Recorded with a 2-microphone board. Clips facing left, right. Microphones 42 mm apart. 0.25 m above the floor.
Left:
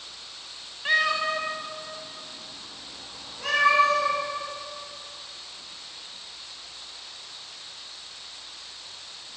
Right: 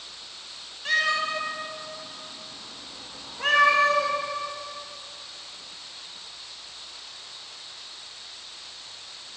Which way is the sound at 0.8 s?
20° left (ahead or behind).